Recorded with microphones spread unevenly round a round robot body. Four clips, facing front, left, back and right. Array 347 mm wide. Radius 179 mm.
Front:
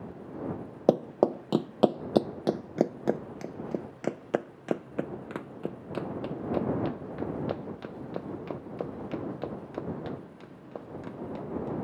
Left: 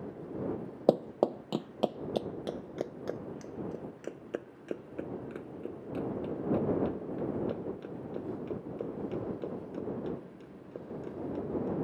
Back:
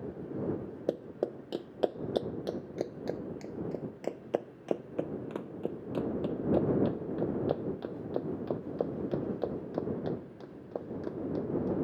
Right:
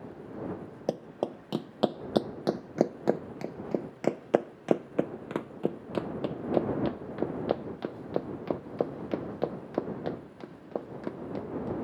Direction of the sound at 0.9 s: 20° left.